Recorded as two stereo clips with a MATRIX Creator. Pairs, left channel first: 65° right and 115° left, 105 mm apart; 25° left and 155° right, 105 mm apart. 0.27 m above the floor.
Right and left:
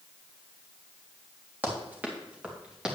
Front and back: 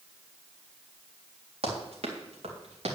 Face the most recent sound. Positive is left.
turn(degrees=-165)